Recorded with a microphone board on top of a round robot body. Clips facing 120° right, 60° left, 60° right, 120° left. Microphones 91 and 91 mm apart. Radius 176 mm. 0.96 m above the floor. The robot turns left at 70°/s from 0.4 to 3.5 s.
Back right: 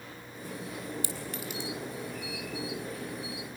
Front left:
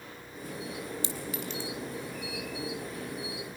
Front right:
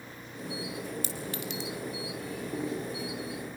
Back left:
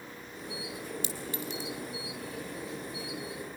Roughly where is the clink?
Ahead.